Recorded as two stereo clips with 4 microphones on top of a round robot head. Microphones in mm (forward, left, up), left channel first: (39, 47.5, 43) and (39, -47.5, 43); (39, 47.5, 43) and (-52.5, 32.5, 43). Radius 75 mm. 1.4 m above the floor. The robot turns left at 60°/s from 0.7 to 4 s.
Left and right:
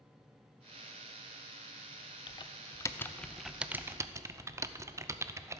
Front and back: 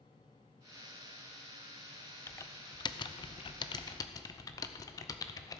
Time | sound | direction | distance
2.3 | typing on a keyboard | 70° left | 0.7 m